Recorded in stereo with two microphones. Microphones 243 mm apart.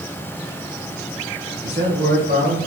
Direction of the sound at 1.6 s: 40° right (ahead or behind).